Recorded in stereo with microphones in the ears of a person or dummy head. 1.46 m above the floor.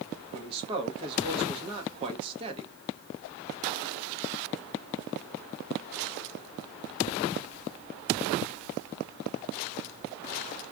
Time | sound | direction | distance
0.3 | a man speaking | 30° right (ahead or behind) | 1.1 m